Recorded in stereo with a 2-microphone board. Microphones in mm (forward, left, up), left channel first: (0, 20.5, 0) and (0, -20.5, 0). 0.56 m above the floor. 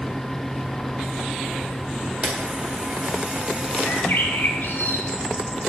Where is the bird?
55° left (ahead or behind), 1.3 m.